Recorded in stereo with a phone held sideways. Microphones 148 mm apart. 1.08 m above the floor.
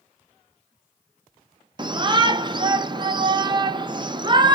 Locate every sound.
1.8 s a shout: 30° right (ahead or behind), 0.7 m